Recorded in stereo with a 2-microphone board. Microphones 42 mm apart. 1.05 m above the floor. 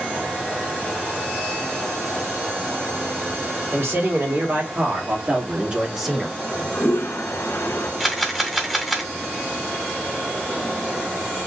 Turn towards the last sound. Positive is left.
turn(degrees=-5)  # may be behind; listen again after turning